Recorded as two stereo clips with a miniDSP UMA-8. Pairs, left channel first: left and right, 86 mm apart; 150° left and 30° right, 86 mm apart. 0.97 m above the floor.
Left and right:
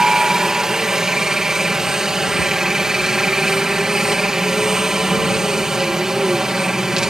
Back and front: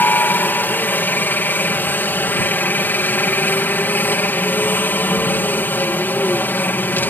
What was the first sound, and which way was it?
A helicopter, 170° right.